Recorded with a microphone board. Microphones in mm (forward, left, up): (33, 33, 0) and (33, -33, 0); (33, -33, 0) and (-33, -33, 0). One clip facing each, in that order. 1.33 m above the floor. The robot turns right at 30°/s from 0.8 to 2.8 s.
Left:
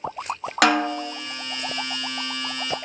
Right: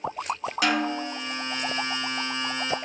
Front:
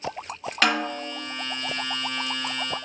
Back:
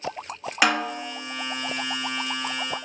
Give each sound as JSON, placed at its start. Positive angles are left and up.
{"t": 0.6, "sound": "a snare drum", "azimuth_deg": 105, "distance_m": 0.6}